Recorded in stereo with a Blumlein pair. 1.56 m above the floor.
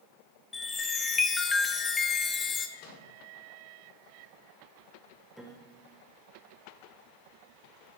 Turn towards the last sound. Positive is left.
turn(degrees=0)